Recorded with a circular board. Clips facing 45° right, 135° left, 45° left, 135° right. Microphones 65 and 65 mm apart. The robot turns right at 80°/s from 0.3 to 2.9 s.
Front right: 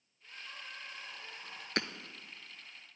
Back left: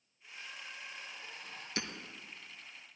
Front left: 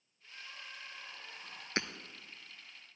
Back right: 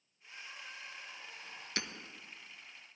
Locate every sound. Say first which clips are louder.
0.2 s crying: even, back right 1 dB; 75° right, 6 m; by 1.7 s 30° left, 6 m
1.8 s hammering: front right 5 dB, front left 4 dB; 10° right, 0.8 m; by 1.9 s straight ahead, 0.8 m